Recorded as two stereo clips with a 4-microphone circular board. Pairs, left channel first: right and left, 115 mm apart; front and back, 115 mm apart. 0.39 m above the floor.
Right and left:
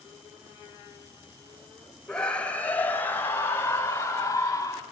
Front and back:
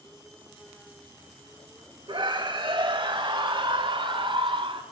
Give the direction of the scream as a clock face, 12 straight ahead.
6 o'clock.